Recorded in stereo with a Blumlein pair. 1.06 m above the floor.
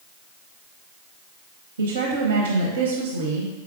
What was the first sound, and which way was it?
A woman speaking, 65° right.